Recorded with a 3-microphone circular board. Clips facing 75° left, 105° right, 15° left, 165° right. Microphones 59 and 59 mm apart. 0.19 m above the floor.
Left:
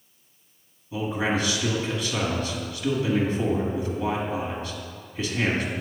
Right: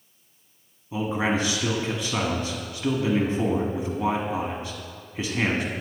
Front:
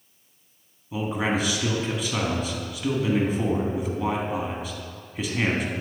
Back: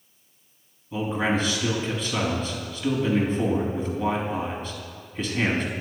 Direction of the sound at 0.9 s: 60° right.